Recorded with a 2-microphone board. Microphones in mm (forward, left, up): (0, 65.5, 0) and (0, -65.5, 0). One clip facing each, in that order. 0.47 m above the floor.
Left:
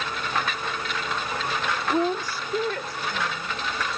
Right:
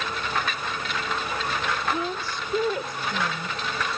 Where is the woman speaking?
40° left (ahead or behind); by 4.0 s 35° right (ahead or behind).